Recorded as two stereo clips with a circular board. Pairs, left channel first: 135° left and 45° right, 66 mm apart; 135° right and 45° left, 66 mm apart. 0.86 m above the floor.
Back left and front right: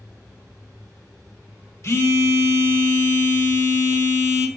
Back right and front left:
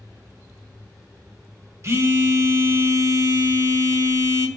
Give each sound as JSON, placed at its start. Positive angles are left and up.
{"t": 1.8, "sound": "a phone buzzing", "azimuth_deg": 90, "distance_m": 0.9}